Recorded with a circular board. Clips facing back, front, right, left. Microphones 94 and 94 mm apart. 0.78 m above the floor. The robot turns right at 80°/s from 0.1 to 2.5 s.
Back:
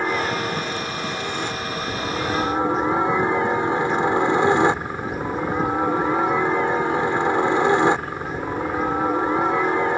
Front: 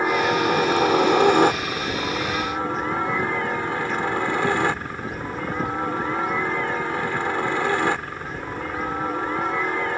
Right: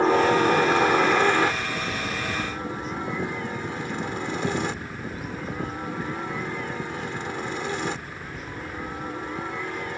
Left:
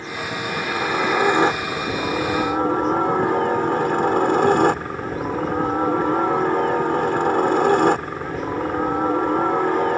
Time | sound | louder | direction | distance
0.0 | a helicopter | front 3 dB, right 10 dB | 80° right | ?